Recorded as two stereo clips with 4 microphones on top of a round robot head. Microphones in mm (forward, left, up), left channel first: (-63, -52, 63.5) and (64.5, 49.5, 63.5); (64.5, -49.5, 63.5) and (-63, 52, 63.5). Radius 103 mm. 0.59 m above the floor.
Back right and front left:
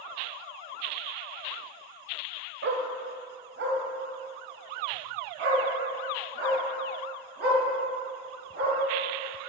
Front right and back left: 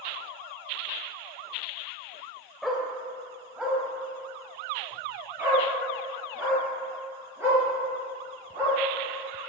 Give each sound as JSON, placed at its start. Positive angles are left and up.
{"t": 2.6, "sound": "a dog barking", "azimuth_deg": 50, "distance_m": 1.0}